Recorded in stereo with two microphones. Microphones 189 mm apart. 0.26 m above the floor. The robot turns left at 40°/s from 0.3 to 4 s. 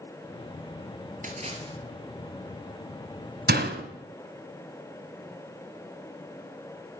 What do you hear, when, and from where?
1.2 s a splash: 45° right (ahead or behind), 2 m; by 1.8 s 25° right (ahead or behind), 2 m
3.5 s a door slam: 60° right (ahead or behind), 1.5 m; by 3.8 s 70° right (ahead or behind), 1.5 m